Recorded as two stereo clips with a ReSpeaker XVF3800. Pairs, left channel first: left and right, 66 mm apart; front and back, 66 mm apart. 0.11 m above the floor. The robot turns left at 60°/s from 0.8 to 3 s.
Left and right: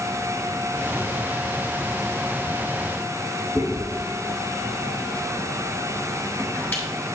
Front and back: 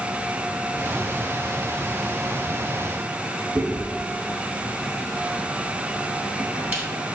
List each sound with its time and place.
3.5 s chewing: 130° left, 0.8 m